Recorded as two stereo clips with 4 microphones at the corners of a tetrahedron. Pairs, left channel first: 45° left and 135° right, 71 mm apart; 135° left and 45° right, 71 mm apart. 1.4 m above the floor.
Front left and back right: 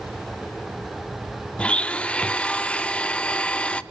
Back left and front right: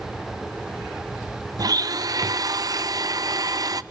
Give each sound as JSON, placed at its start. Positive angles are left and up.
{"t": 1.6, "sound": "a blender", "azimuth_deg": -30, "distance_m": 0.6}